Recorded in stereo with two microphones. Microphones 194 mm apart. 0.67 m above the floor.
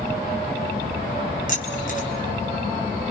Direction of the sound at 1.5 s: 45° left (ahead or behind).